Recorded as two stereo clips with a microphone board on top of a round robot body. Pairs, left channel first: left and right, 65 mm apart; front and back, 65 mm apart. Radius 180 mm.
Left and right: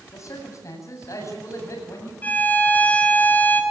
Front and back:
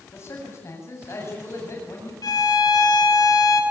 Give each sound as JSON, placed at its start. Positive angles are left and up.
{"t": 0.1, "sound": "a man speaking", "azimuth_deg": 50, "distance_m": 8.0}
{"t": 2.2, "sound": "a violin", "azimuth_deg": 25, "distance_m": 3.0}